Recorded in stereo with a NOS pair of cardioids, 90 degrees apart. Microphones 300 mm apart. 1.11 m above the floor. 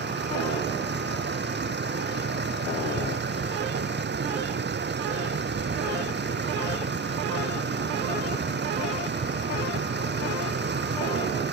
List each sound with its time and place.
0.0 s a vehicle: 35° right